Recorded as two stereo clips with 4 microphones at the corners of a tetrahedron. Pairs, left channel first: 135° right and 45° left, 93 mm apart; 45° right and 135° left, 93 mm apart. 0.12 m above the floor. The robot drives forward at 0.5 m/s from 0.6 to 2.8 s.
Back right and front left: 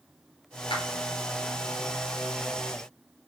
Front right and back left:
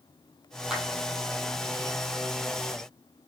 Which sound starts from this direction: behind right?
A clap, at 0.7 s.